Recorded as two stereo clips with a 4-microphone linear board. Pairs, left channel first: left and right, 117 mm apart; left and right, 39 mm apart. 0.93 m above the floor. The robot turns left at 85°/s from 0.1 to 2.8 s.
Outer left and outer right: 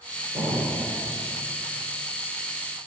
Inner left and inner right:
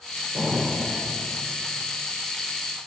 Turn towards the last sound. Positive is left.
turn(degrees=100)